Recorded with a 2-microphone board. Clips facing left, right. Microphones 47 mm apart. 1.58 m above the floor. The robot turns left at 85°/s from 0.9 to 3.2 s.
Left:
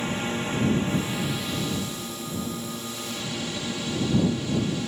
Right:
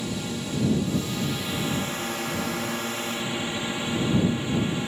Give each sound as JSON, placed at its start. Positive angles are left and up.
{"t": 0.0, "sound": "a drone", "azimuth_deg": 40}